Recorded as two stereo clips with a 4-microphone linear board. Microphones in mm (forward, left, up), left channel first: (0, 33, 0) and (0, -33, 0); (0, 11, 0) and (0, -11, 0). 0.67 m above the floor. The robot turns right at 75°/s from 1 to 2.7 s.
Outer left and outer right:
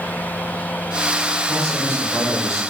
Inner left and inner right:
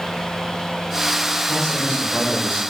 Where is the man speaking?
10° left, 3 m; by 2.6 s 95° left, 3 m.